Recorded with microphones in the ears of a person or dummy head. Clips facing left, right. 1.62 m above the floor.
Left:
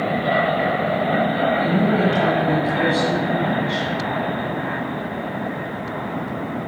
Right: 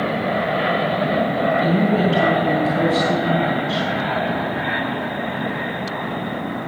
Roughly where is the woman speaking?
Centre.